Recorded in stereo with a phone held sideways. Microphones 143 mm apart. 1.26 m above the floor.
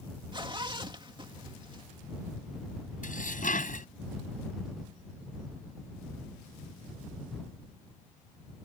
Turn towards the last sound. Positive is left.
turn(degrees=65)  # may be behind; listen again after turning